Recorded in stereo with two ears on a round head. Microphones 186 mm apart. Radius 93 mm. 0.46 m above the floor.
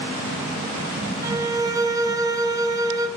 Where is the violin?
20° right (ahead or behind), 0.8 m.